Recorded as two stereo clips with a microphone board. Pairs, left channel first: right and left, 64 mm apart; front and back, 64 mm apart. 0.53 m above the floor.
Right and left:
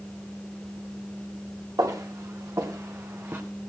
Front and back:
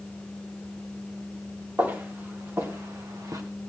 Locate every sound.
1.8 s footsteps: 120° left, 3 m; by 3.4 s 150° left, 1.8 m